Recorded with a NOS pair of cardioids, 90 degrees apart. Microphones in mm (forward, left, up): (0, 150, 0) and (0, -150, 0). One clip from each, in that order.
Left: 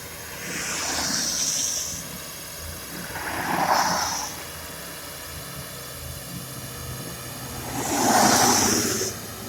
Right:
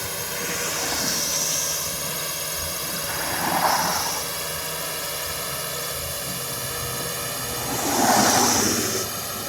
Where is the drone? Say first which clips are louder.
Right 7 dB; 70° right; by 9.5 s 60° right.